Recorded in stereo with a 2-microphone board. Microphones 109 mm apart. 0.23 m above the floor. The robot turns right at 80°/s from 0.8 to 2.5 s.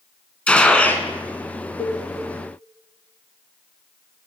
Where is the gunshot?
10° left (ahead or behind), 1.3 m; by 1.1 s 30° left (ahead or behind), 1.3 m.